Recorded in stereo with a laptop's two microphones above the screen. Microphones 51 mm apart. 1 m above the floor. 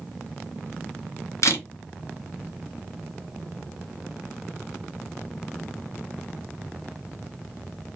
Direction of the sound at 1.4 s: 70° left (ahead or behind).